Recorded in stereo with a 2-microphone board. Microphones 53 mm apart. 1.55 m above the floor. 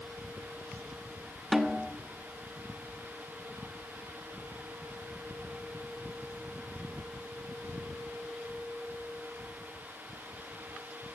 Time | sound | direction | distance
1.5 | a snare drum | 5° right (ahead or behind) | 1.1 m